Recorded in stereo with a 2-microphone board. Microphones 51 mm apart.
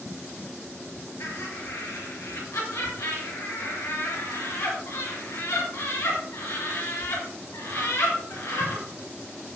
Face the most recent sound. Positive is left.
turn(degrees=90)